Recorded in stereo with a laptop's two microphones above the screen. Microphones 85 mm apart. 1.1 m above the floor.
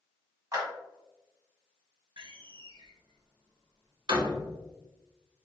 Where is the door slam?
65° right (ahead or behind), 1.3 m.